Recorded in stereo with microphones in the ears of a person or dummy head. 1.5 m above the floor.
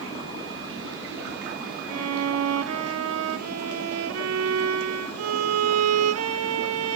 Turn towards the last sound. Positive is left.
turn(degrees=-85)